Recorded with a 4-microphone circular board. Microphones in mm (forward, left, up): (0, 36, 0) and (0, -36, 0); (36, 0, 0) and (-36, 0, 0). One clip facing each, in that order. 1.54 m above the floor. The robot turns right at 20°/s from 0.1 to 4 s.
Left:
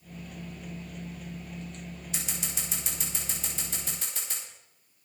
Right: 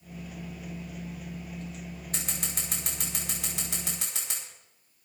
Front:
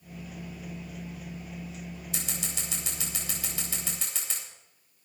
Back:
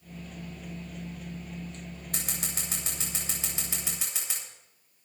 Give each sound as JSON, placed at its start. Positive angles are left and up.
{"t": 2.1, "sound": "scissors", "azimuth_deg": -140, "distance_m": 9.0}